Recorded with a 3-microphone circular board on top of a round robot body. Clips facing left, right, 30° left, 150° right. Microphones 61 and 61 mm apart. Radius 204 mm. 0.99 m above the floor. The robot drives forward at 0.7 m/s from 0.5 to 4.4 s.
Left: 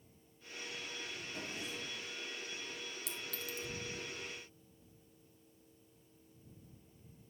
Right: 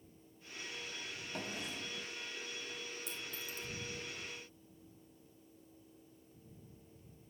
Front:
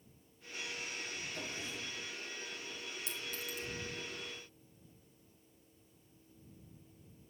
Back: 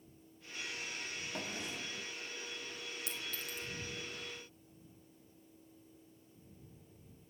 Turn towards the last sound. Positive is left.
turn(degrees=145)